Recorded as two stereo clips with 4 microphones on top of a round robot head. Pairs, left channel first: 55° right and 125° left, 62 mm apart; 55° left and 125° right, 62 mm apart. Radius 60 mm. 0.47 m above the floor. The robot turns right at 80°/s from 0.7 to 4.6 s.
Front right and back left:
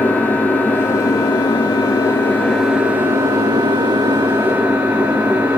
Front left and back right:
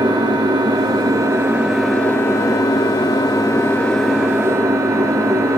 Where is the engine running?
125° right, 3.5 m; by 5.6 s 170° right, 3.5 m.